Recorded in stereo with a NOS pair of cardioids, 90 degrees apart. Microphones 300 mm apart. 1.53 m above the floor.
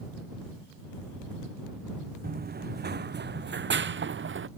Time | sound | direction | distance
2.2 | running footsteps | 30° right | ?